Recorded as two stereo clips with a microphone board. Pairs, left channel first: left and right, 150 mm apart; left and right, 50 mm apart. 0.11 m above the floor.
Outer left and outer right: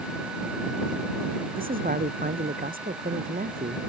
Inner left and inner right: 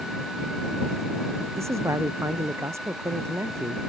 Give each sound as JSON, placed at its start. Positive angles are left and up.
{"t": 1.6, "sound": "a man speaking", "side_deg": -70}